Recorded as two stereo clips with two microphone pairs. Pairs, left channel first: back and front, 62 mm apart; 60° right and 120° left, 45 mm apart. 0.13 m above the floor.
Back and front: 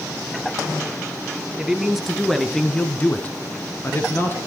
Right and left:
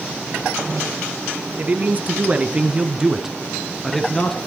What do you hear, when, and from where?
1.6 s a man speaking: 80° left, 2 m; by 4.4 s 135° right, 2 m